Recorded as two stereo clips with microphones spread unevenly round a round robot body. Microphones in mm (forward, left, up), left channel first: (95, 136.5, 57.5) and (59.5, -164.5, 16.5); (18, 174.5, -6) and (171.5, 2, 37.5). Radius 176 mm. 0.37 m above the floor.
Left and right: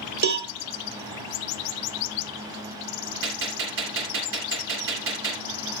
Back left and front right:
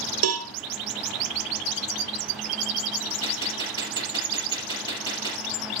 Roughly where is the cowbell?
Ahead right.